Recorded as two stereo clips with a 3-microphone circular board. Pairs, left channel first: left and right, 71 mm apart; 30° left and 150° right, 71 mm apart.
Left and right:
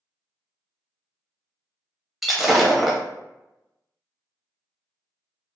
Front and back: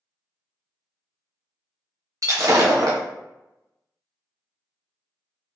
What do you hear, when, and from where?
2.2 s breaking glass: 175° right, 0.8 m